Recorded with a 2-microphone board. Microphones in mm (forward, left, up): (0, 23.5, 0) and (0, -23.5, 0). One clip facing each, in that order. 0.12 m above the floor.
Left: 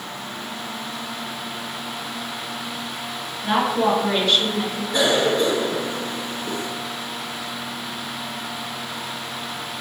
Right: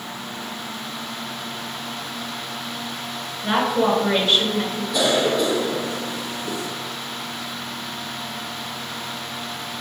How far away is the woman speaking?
About 1.9 m.